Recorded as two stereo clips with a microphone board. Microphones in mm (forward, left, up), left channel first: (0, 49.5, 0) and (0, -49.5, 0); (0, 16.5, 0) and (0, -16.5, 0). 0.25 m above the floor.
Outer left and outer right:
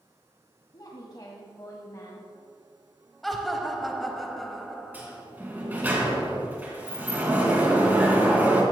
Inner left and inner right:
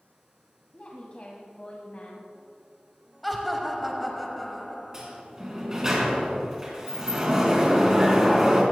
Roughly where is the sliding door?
Centre.